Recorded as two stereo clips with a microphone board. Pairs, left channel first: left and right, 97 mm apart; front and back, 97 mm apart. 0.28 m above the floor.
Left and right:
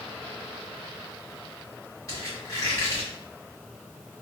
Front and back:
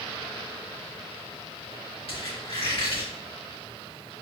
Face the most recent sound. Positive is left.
turn(degrees=35)